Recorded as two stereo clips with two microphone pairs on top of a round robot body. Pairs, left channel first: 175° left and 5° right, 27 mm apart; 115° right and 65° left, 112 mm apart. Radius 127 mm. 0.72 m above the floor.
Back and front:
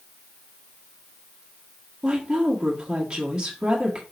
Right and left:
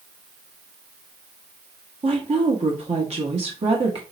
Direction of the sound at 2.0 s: 50° left.